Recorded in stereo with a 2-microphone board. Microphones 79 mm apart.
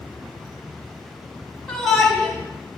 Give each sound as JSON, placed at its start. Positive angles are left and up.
{"t": 1.7, "sound": "a shout", "side_deg": 5, "distance_m": 1.8}